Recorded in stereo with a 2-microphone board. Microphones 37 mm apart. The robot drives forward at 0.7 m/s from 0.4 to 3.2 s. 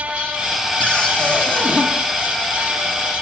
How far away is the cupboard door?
About 2.5 m.